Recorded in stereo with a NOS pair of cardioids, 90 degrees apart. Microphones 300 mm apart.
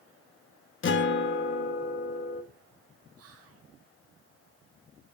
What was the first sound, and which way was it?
A guitar, 40° left.